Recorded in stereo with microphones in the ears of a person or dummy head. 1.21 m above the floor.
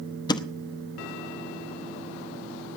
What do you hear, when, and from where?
0.3 s a thud: 25° left (ahead or behind), 0.8 m